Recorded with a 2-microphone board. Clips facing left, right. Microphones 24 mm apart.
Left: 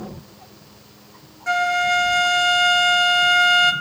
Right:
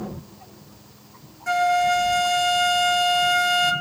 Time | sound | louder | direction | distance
1.5 | a flute | even | 10° left (ahead or behind) | 0.9 m